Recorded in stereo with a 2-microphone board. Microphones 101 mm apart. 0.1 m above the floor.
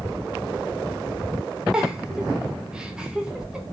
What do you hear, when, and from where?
1.7 s a giggle: 10° right (ahead or behind), 3 m